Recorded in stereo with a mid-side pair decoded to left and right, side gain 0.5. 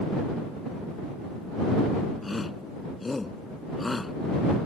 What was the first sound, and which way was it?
A shout, 20° left.